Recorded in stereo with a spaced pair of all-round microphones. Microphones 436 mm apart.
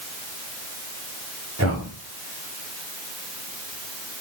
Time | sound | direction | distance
1.6 | a man speaking | 35° right (ahead or behind) | 4.5 m